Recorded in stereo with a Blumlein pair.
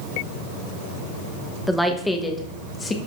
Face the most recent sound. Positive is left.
turn(degrees=15)